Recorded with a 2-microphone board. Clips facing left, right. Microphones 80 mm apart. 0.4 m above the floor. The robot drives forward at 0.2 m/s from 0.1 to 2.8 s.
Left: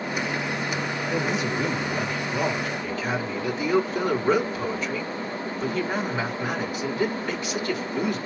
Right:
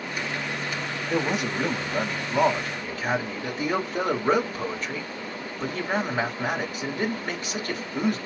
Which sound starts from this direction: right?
A man speaking, at 1.1 s.